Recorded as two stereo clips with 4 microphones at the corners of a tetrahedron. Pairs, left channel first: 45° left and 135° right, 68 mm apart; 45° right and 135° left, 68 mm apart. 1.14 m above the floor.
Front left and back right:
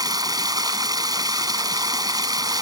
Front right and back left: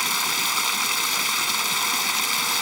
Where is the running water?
135° right.